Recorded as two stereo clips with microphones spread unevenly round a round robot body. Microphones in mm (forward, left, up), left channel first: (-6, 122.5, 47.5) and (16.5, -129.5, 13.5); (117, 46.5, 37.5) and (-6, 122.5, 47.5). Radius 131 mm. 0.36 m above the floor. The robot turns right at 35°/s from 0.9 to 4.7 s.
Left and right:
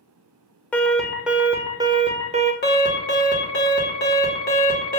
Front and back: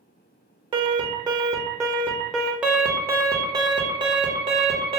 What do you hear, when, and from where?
0.7 s an alarm: 175° right, 0.6 m; by 2.5 s 115° right, 0.6 m
2.6 s an alarm: 65° left, 1.1 m; by 5.0 s 135° left, 1.1 m